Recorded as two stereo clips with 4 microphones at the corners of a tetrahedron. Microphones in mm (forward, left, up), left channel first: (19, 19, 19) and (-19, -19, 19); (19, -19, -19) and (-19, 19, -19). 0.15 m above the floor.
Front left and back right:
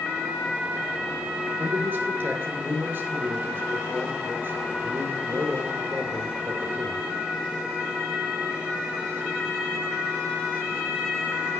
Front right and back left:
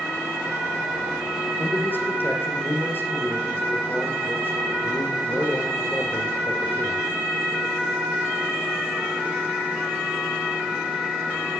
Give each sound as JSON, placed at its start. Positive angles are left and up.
{"t": 1.6, "sound": "a man speaking", "azimuth_deg": -90, "distance_m": 2.5}